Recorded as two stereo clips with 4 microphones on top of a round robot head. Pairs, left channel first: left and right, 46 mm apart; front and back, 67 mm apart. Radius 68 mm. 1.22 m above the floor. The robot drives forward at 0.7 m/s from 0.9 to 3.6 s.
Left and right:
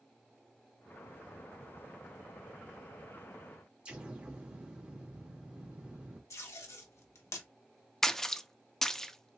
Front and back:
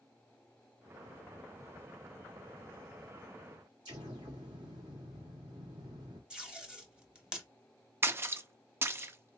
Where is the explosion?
150° right, 1.2 m.